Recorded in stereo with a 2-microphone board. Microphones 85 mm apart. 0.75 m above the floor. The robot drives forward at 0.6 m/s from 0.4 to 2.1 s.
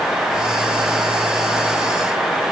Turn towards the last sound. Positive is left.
No sound to turn to.